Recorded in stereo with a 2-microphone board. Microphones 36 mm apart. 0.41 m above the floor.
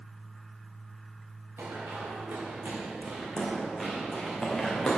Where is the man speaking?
I don't hear a man speaking.